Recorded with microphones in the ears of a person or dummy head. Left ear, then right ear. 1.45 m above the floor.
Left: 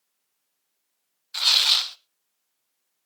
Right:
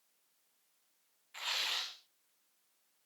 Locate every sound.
1.3 s tearing paper: 55° left (ahead or behind), 0.8 m